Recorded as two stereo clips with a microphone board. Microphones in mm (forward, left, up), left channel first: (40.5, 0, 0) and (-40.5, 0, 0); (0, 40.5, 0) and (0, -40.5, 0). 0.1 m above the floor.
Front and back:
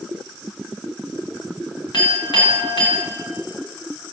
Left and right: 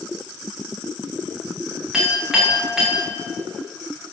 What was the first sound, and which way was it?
A clink, 10° right.